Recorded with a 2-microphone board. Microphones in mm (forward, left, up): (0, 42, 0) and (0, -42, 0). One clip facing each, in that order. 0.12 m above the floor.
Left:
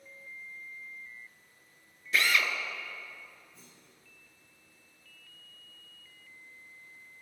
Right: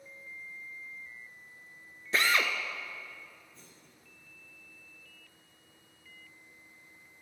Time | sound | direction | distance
2.1 | a drill | 30° right (ahead or behind) | 0.6 m
3.5 | a clunk | 5° left (ahead or behind) | 3 m